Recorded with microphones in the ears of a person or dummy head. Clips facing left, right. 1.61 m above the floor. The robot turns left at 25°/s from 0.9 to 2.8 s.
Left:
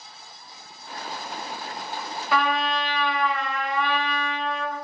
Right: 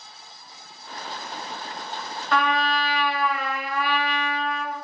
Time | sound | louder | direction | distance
2.3 | a trumpet | right 1 dB | 20° left (ahead or behind) | 0.8 m